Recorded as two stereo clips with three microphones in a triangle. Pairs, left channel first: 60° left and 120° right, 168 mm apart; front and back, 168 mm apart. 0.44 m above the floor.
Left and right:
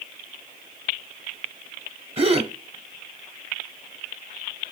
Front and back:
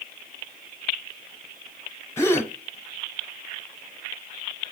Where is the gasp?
70° right, 0.9 m.